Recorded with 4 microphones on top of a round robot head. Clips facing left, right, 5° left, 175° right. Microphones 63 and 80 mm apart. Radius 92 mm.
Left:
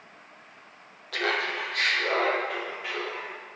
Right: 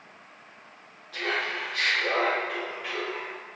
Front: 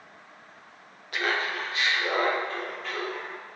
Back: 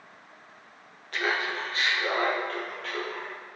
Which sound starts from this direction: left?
Laughter, at 1.1 s.